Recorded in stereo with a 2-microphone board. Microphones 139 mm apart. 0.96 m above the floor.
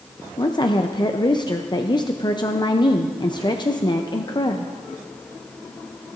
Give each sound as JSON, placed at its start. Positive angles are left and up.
{"t": 0.4, "sound": "a woman speaking", "side_deg": 30, "distance_m": 0.6}